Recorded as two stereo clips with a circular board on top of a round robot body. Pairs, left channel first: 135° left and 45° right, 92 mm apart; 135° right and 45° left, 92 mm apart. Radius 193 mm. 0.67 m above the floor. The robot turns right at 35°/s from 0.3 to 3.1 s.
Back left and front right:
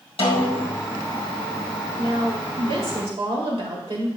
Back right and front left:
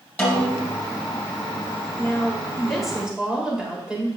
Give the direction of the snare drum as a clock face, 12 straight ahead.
7 o'clock.